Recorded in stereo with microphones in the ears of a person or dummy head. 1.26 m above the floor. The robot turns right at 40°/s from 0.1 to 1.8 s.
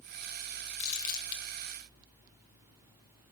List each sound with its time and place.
0.8 s crumpling: 35° left (ahead or behind), 1.7 m; by 1.4 s 55° left (ahead or behind), 1.7 m